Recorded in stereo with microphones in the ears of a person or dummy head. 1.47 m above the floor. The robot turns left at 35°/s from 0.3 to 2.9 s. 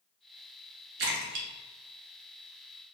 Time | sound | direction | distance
1.0 | a splash | 60° right (ahead or behind) | 1.0 m